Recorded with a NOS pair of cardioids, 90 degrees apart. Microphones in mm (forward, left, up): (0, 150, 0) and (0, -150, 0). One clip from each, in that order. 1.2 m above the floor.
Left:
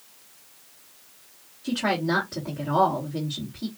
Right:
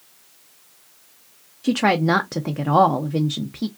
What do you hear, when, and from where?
1.6 s a woman speaking: 65° right, 0.7 m